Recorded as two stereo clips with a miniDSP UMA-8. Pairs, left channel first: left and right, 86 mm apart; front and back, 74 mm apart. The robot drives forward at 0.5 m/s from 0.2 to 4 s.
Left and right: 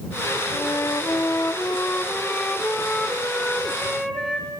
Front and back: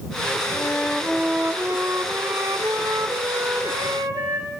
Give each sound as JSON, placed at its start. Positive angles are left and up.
{"t": 0.5, "sound": "a flute", "azimuth_deg": 45, "distance_m": 0.5}